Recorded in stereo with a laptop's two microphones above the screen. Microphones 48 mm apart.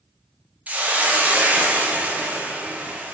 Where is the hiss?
30° right (ahead or behind), 0.5 m.